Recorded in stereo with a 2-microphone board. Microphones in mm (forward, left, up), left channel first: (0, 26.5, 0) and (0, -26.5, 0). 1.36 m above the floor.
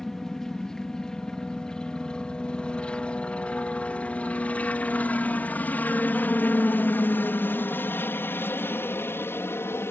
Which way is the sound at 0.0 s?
10° left (ahead or behind).